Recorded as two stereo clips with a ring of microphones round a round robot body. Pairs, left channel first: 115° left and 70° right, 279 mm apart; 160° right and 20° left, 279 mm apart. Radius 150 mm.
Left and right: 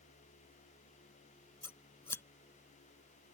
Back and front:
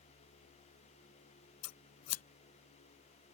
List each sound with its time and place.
1.6 s scissors: 165° right